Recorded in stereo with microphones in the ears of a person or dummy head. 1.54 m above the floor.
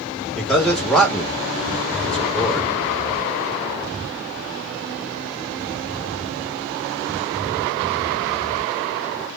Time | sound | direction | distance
0.3 | a man speaking | 5° left (ahead or behind) | 1.7 m